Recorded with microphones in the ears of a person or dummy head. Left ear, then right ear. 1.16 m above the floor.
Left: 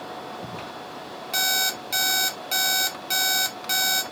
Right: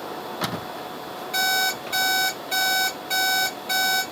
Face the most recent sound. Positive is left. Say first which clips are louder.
# right 1 dB
turn(degrees=30)  # may be behind; listen again after turning